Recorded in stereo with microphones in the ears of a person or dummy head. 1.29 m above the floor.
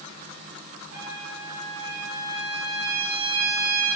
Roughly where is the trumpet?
Right.